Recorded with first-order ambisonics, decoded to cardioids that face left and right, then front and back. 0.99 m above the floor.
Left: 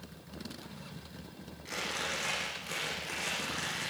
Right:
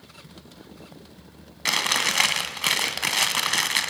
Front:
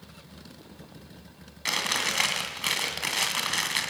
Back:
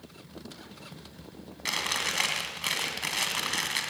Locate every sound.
1.6 s chewing: 85° right, 2.5 m